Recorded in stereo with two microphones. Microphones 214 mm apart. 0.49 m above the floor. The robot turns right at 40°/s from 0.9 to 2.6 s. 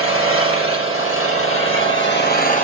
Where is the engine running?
75° left, 4.5 m; by 2.6 s 145° left, 4.5 m.